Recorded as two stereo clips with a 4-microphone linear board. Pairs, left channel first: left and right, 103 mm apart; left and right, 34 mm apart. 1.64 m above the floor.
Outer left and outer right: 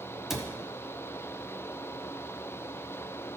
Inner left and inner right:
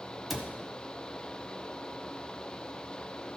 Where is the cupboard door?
5° right (ahead or behind), 1.1 m.